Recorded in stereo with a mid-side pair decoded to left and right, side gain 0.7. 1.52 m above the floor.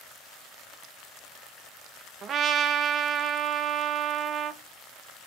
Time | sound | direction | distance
2.2 | a trumpet | 40° right | 1.1 m